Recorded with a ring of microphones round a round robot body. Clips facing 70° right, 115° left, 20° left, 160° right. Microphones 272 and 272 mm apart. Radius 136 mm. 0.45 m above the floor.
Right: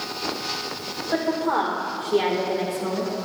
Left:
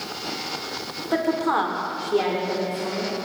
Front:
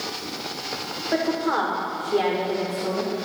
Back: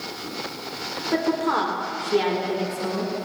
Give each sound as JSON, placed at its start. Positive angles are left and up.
{"t": 1.1, "sound": "a woman speaking", "azimuth_deg": 125, "distance_m": 2.0}